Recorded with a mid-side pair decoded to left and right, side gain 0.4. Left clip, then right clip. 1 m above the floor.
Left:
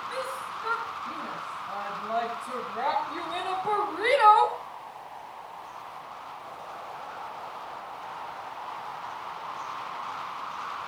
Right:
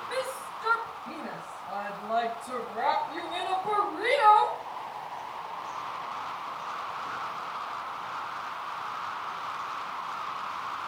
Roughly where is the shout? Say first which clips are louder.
Right 3 dB; ahead right.